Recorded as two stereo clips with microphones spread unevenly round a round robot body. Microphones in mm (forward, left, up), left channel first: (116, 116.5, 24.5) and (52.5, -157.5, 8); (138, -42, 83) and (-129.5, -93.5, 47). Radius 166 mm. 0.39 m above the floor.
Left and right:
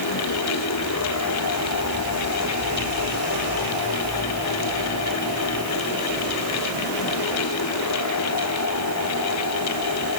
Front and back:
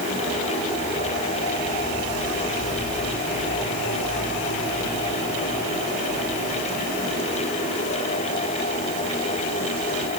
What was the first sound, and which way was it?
Only background noise.